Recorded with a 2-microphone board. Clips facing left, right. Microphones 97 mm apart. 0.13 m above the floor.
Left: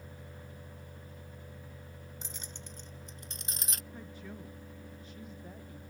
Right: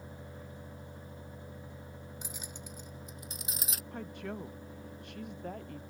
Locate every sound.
2.2 s keys jangling: 10° right (ahead or behind); by 3.8 s 5° right (ahead or behind)
3.9 s a woman speaking: 65° right (ahead or behind)